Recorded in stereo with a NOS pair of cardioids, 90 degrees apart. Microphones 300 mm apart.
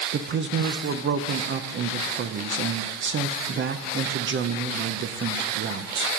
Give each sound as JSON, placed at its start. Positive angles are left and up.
{"t": 0.1, "sound": "a man speaking", "azimuth_deg": -40, "distance_m": 0.7}